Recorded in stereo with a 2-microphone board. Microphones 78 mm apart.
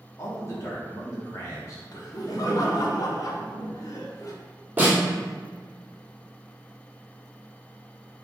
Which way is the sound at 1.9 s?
50° left (ahead or behind).